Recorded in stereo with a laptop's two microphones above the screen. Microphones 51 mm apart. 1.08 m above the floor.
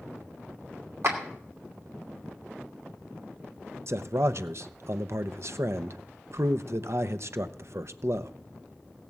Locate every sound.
1.0 s a clap: 60° right (ahead or behind), 2.5 m
3.9 s a man speaking: 60° right (ahead or behind), 0.7 m